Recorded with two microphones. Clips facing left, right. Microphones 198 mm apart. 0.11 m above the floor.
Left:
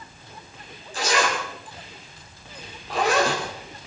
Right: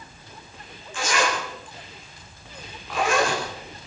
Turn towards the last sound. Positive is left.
turn(degrees=35)  # may be behind; listen again after turning